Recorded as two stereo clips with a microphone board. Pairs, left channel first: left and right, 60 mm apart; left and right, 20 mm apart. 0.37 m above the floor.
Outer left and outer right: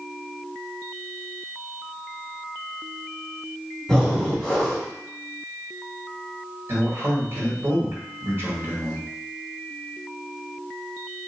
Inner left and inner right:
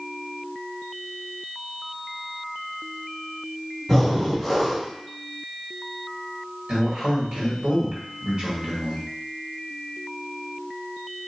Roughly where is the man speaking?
Right.